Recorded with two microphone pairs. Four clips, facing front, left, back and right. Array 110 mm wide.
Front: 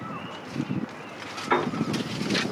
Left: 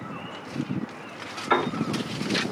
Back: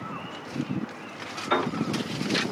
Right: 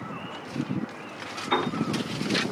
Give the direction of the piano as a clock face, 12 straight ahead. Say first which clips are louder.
Left 3 dB, front 1 dB; 9 o'clock.